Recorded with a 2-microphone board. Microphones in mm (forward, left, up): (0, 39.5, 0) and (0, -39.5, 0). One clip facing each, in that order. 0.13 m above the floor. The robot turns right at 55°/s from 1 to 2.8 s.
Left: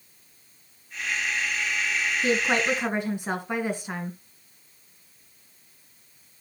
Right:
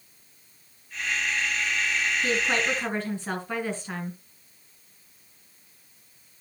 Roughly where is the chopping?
No chopping in this recording.